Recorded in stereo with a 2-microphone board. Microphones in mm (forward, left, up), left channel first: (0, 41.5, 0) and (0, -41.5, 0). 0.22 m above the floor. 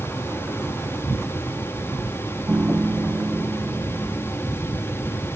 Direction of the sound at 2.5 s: 25° right (ahead or behind).